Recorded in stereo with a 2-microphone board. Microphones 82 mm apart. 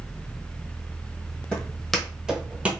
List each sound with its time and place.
1.5 s footsteps: 15° left (ahead or behind), 1.2 m; by 2.7 s 15° right (ahead or behind), 1.0 m